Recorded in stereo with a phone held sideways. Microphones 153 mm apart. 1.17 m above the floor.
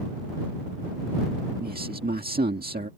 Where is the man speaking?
90° right.